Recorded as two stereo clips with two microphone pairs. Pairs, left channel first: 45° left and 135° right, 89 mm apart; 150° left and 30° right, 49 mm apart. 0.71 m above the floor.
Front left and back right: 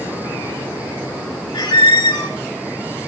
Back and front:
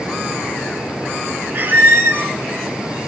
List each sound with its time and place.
1.5 s a squeak: 20° left, 1.1 m